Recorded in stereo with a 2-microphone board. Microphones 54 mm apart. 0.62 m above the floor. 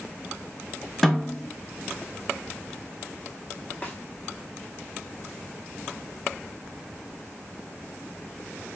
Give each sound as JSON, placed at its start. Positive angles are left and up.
{"t": 1.0, "sound": "a snare drum", "side_deg": 10, "distance_m": 0.7}
{"t": 3.8, "sound": "a snare drum", "side_deg": 30, "distance_m": 1.0}